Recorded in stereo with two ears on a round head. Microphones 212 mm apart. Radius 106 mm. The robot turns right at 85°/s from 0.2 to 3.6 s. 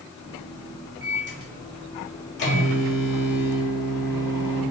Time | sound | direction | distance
1.0 | a microwave | 60° right | 1.5 m